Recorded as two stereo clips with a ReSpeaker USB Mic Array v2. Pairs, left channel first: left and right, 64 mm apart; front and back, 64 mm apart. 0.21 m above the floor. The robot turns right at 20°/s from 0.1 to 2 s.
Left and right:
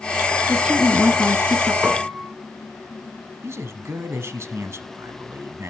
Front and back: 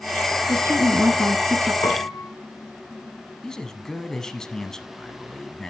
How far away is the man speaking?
About 1.4 m.